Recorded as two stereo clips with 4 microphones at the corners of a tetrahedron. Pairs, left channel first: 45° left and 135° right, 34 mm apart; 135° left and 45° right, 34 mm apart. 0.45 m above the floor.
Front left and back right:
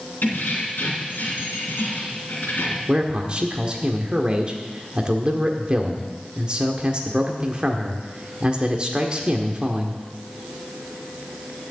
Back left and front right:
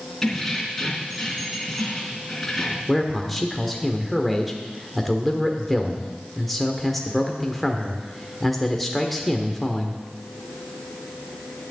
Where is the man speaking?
140° right, 1.3 m.